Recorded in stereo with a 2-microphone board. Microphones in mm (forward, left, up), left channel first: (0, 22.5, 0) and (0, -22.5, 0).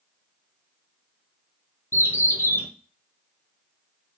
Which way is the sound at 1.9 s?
80° left.